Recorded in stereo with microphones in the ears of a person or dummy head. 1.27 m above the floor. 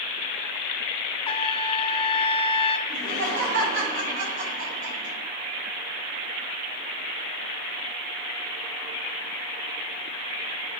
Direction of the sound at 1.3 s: 25° left (ahead or behind).